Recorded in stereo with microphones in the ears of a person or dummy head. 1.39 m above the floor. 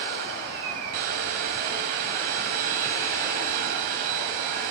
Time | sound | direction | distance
0.0 | a machine running | 40° right (ahead or behind) | 1.6 m